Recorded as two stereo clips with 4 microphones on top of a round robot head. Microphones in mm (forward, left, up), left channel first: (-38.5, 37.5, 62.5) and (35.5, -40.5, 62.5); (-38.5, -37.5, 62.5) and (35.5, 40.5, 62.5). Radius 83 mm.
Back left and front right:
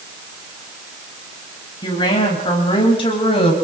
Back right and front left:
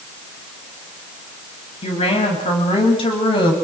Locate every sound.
1.8 s a woman speaking: 170° right, 10 m; by 3.5 s straight behind, 8.5 m